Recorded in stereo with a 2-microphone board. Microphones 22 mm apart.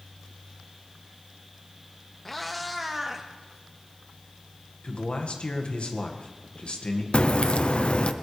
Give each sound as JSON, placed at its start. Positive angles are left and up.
{"t": 2.2, "sound": "a cat meowing", "side_deg": 10, "distance_m": 1.1}
{"t": 4.8, "sound": "a man speaking", "side_deg": 55, "distance_m": 1.8}
{"t": 7.1, "sound": "a crack", "side_deg": 55, "distance_m": 0.7}